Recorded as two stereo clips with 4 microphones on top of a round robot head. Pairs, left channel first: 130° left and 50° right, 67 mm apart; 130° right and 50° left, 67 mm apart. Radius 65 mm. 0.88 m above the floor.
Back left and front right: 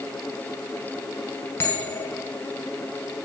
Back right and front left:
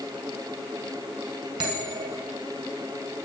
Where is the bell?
70° left, 2 m.